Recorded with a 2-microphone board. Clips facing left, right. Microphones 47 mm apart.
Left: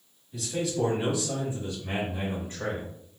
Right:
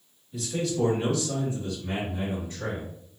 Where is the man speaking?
Centre (ahead or behind), 1.4 m; by 2.9 s 40° left (ahead or behind), 1.9 m.